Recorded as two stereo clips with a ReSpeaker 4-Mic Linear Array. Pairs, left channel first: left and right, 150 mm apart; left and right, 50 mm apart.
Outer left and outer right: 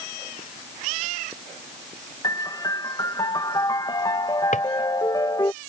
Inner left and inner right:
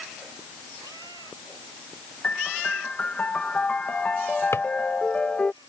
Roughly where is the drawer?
Left.